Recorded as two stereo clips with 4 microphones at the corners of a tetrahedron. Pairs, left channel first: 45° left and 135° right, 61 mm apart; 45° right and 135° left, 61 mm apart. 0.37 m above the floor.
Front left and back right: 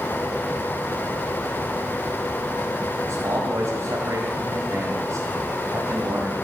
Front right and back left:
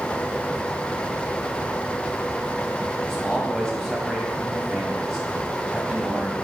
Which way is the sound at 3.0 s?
130° right.